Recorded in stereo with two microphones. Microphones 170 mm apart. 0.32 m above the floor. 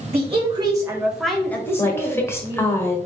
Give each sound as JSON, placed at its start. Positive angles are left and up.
{"t": 0.1, "sound": "a woman speaking", "side_deg": -35, "distance_m": 1.2}
{"t": 1.8, "sound": "a woman speaking", "side_deg": 15, "distance_m": 1.2}